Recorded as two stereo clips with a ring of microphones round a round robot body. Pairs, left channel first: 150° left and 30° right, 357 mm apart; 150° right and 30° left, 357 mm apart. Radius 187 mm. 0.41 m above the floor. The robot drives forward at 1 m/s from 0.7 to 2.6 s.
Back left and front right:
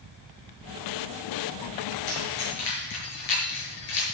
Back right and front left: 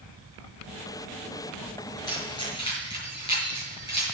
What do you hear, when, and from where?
2.1 s keys jangling: 130° left, 6.5 m; by 4.2 s 135° left, 7 m